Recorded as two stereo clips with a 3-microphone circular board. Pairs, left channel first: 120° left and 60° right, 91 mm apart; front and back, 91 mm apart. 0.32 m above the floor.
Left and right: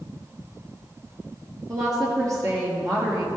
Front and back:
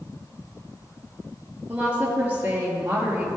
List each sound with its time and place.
1.7 s a woman speaking: 110° right, 5.5 m